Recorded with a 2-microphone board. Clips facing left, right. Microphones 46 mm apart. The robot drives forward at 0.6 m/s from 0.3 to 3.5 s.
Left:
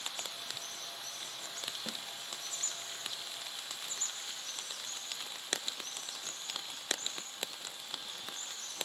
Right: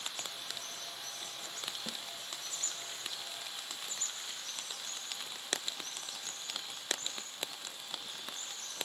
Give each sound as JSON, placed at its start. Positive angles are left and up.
{"t": 1.9, "sound": "a snare drum", "side_deg": 5, "distance_m": 0.8}